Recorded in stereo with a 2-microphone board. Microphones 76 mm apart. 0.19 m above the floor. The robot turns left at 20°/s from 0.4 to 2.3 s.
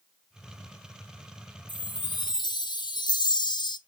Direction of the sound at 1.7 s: 65° left (ahead or behind).